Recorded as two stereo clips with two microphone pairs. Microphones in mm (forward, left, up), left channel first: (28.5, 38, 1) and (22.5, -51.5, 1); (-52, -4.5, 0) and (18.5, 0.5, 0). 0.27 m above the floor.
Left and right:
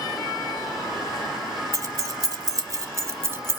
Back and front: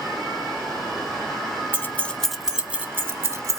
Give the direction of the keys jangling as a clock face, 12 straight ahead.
4 o'clock.